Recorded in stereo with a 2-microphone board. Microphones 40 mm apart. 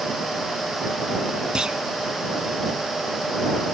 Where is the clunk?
20° right (ahead or behind).